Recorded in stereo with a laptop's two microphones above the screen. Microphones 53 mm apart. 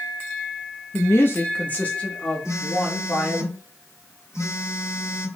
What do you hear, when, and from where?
0.9 s a woman speaking: 55° left (ahead or behind), 1.0 m; by 3.5 s 10° left (ahead or behind), 3 m
2.5 s a phone buzzing: 60° left (ahead or behind), 3.5 m